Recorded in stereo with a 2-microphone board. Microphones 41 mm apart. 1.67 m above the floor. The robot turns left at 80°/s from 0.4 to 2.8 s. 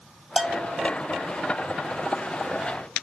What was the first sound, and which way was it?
A bell, 10° right (ahead or behind).